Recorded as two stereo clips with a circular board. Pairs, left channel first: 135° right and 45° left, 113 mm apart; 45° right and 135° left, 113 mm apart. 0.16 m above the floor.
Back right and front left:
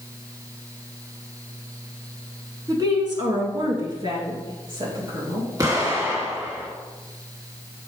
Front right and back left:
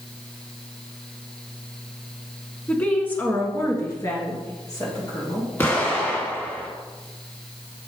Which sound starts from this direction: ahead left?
A woman speaking, at 2.7 s.